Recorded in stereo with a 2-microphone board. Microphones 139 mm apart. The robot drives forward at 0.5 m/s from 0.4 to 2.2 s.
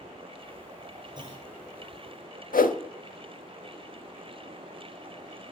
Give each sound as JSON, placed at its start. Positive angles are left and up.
{"t": 1.1, "sound": "a clunk", "side_deg": -35, "distance_m": 3.0}
{"t": 2.5, "sound": "a whoosh", "side_deg": 80, "distance_m": 0.6}